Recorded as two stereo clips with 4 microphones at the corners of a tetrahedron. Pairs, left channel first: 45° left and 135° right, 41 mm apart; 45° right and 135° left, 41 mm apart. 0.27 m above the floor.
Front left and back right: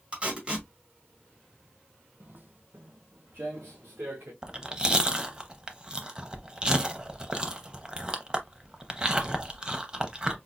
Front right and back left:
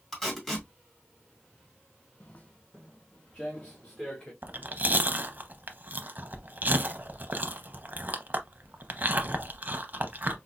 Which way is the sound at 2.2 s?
95° right.